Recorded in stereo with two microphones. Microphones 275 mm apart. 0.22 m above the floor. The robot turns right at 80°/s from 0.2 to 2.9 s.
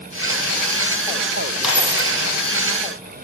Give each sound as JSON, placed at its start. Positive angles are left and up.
{"t": 1.6, "sound": "a dropped coin", "azimuth_deg": 180, "distance_m": 1.1}